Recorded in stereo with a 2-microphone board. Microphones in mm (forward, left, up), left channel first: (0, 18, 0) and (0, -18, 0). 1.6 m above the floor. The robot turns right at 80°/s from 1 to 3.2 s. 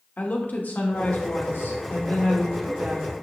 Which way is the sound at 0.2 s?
55° left.